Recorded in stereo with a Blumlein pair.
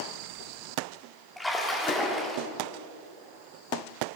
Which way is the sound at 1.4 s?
5° left.